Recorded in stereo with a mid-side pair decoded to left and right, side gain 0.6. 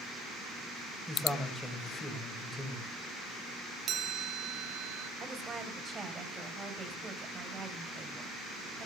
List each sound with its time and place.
1.1 s a man speaking: straight ahead, 7.5 m
3.9 s a chime: 50° right, 2.5 m
5.2 s a woman speaking: 30° right, 6 m